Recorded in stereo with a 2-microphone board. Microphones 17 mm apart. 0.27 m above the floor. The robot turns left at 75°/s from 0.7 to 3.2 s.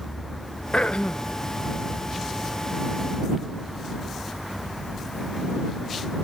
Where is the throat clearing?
110° left; by 1.4 s 65° left.